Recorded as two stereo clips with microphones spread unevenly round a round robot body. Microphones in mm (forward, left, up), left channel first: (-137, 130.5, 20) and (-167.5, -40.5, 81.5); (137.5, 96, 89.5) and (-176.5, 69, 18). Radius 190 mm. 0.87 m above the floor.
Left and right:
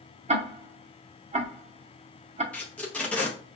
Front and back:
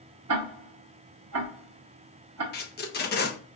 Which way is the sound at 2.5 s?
60° left.